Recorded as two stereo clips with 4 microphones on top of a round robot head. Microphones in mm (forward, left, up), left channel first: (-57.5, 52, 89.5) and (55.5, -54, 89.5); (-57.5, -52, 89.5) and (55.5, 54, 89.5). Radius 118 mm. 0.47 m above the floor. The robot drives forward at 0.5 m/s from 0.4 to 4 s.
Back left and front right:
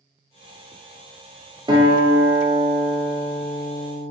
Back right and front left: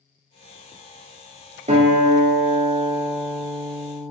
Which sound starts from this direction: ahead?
A guitar, at 1.7 s.